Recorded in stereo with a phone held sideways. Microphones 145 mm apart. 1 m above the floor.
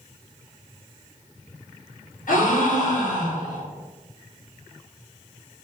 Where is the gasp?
75° left (ahead or behind), 1.3 m.